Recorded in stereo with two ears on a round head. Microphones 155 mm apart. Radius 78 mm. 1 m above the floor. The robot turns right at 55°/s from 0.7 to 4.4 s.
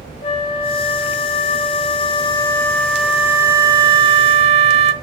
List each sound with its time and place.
0.2 s a flute: 50° left, 0.7 m; by 4.9 s 105° right, 0.7 m